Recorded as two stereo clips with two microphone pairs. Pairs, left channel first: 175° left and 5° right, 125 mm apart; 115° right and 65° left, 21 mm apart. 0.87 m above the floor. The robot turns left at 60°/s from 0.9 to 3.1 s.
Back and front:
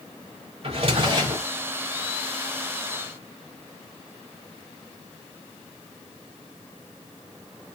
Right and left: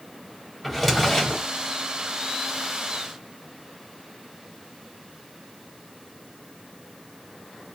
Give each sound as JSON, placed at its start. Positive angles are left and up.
{"t": 0.6, "sound": "a drawer", "azimuth_deg": -30, "distance_m": 1.0}